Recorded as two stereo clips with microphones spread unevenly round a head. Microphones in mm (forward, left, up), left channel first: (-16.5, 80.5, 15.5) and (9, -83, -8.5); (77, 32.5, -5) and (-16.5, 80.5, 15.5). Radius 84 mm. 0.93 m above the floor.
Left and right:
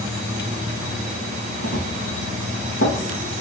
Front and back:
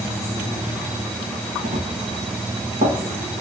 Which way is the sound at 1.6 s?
130° left.